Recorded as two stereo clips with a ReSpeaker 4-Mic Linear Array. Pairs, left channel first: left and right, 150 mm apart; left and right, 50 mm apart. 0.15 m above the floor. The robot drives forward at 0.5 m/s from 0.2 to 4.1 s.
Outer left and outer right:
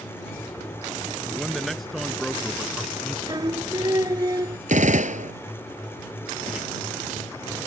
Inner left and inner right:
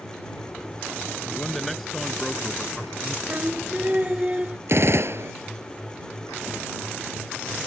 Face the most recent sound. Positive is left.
turn(degrees=-60)  # may be behind; listen again after turning